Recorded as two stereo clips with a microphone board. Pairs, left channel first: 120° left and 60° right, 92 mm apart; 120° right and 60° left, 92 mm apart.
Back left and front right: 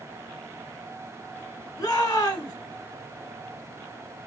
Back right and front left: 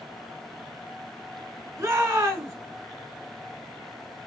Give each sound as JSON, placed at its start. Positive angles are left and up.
{"t": 1.8, "sound": "a shout", "azimuth_deg": 100, "distance_m": 1.5}